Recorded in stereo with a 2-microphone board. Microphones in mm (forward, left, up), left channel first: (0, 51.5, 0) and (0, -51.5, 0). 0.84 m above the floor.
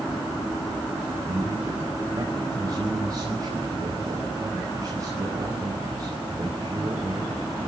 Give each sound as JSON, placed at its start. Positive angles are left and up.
{"t": 1.3, "sound": "a man speaking", "side_deg": -35, "distance_m": 5.0}